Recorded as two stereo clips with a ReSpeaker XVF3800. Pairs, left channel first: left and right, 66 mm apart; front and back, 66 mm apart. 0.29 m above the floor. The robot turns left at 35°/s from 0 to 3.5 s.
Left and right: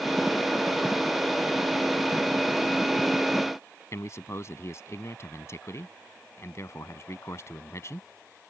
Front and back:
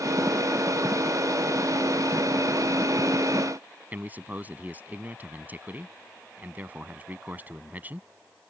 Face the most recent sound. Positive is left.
turn(degrees=120)